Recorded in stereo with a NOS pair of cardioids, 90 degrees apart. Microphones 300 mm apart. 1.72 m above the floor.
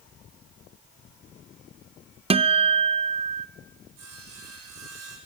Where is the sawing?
60° right, 7 m.